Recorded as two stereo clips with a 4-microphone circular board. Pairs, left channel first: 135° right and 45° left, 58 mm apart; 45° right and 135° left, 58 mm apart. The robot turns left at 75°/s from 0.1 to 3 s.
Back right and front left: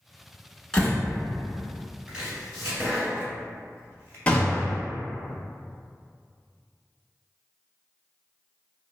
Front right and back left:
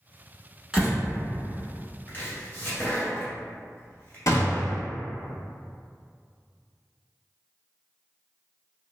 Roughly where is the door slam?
Behind.